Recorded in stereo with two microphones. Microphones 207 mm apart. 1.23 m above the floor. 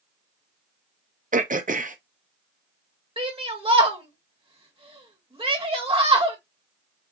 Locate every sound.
1.3 s throat clearing: 40° right (ahead or behind), 0.6 m
3.2 s a shout: 25° right (ahead or behind), 1.5 m